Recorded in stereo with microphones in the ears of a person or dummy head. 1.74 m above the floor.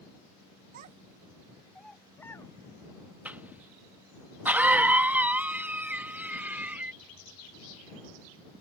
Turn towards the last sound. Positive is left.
turn(degrees=-5)  # may be behind; listen again after turning